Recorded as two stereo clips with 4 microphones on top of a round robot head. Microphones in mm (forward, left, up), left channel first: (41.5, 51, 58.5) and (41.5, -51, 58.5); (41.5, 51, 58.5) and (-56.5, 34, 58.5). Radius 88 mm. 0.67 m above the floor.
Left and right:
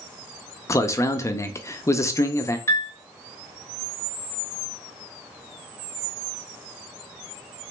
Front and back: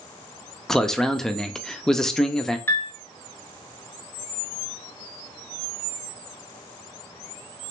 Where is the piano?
55° left, 0.9 m.